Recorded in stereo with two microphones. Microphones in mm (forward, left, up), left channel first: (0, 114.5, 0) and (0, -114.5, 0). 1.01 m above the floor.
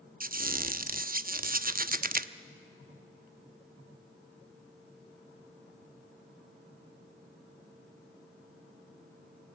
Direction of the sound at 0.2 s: 40° right (ahead or behind).